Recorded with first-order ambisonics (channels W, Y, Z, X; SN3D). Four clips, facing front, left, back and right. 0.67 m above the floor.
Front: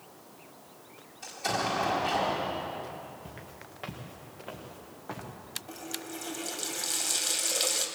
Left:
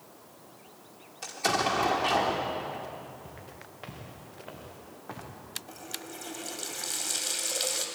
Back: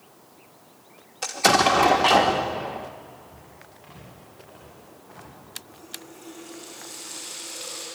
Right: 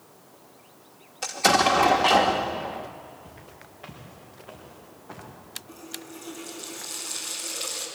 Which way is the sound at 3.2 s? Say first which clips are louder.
Even, front 1 dB; 20° left.